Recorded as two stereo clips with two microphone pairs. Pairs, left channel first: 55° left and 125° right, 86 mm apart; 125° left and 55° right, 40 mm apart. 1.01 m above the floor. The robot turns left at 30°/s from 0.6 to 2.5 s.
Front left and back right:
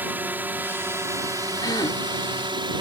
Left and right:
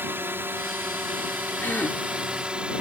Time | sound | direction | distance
0.0 | a drone | 60° right | ?
1.6 | a gasp | 90° left | ?